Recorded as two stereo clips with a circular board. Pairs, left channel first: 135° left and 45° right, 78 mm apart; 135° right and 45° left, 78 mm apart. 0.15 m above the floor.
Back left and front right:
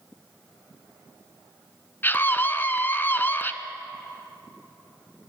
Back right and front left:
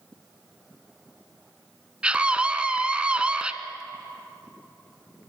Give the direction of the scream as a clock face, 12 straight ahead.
8 o'clock.